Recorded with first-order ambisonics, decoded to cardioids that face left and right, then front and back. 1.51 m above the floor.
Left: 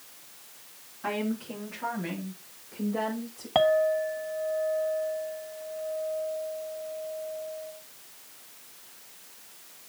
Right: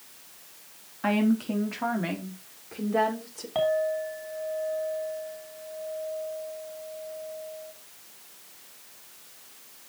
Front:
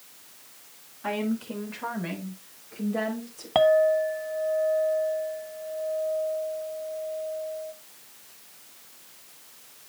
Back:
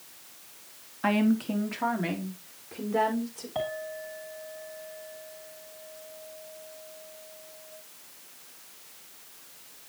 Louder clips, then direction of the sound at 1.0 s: Right 5 dB, back 3 dB; 150° right.